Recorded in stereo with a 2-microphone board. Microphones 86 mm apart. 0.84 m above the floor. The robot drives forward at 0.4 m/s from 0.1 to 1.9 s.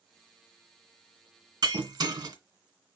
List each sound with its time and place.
1.6 s breaking glass: 65° right (ahead or behind), 1.7 m